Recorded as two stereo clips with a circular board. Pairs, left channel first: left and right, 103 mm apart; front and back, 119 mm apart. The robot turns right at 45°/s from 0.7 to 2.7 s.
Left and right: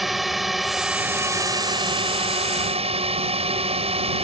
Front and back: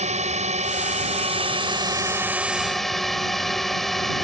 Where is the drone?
Straight behind; by 4.2 s 90° right.